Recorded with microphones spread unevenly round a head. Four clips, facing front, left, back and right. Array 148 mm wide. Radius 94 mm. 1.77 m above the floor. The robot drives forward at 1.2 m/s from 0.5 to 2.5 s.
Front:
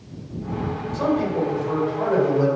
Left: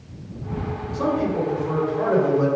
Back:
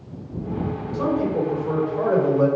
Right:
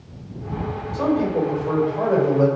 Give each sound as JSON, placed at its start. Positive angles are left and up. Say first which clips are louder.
{"t": 0.9, "sound": "a man speaking", "louder": "right 2 dB, even", "azimuth_deg": -140, "distance_m": 3.0}